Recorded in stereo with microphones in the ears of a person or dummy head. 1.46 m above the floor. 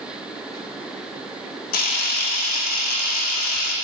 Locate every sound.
1.7 s a camera shutter: 45° left (ahead or behind), 0.5 m